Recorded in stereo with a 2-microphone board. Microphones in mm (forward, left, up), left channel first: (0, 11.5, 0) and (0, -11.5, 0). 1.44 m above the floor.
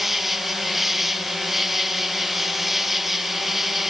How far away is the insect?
About 1.1 m.